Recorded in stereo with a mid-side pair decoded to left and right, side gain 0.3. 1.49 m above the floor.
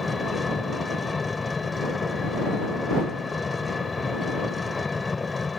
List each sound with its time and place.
0.0 s an engine running: 30° left